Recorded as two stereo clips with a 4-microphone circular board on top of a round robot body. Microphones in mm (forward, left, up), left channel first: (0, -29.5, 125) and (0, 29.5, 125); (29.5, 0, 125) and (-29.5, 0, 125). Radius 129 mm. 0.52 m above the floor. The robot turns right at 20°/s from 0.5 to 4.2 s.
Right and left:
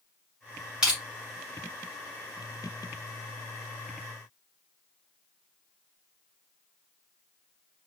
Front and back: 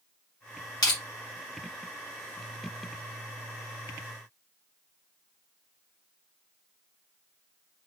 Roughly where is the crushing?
Ahead.